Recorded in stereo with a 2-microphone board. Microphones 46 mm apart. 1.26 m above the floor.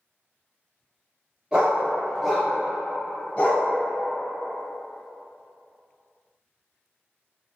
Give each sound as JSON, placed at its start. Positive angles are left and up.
{"t": 1.5, "sound": "a dog barking", "side_deg": -20, "distance_m": 0.9}